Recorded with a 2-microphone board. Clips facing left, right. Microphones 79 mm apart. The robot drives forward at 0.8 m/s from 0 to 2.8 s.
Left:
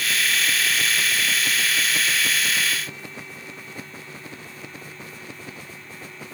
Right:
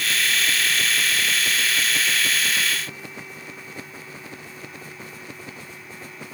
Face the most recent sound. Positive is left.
No sound to turn to.